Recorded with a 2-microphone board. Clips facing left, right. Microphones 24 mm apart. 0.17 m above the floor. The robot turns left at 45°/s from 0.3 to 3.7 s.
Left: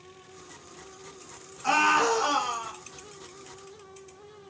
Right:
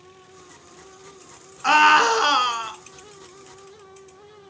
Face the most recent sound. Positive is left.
turn(degrees=-150)